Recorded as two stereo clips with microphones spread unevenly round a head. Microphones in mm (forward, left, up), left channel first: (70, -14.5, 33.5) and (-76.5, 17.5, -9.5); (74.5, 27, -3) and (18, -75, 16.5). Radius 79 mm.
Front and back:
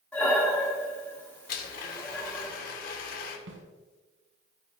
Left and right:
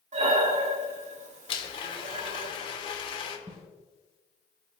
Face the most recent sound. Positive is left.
turn(degrees=175)